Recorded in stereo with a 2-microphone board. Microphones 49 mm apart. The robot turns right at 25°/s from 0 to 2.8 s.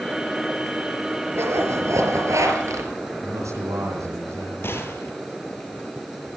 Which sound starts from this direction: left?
A gunshot, at 4.6 s.